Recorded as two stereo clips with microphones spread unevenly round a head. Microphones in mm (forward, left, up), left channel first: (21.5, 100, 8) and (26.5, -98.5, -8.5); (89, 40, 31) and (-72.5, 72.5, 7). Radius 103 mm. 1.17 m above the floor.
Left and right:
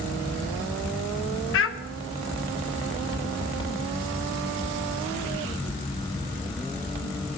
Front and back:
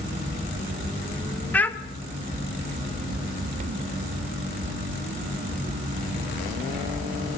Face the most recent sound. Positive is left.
turn(degrees=70)